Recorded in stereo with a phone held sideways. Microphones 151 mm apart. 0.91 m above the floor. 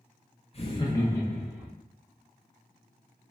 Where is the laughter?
40° left (ahead or behind), 0.7 m; by 1.7 s 5° right (ahead or behind), 0.9 m.